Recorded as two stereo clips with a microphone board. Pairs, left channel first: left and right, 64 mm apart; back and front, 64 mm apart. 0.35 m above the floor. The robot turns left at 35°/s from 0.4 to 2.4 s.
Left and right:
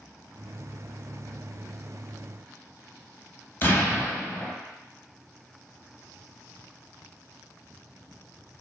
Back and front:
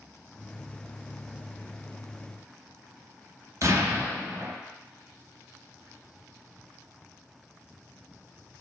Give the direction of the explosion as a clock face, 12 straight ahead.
11 o'clock.